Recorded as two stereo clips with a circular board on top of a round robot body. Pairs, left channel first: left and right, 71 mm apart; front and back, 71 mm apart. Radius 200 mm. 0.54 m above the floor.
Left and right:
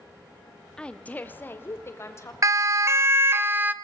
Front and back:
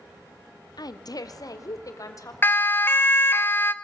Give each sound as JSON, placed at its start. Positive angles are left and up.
{"t": 0.8, "sound": "a woman speaking", "azimuth_deg": 15, "distance_m": 1.7}
{"t": 2.4, "sound": "a siren", "azimuth_deg": -55, "distance_m": 2.0}